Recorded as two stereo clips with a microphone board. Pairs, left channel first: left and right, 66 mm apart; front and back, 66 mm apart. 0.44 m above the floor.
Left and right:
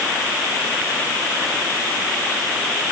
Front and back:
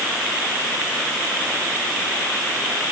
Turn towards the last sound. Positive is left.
No sound to turn to.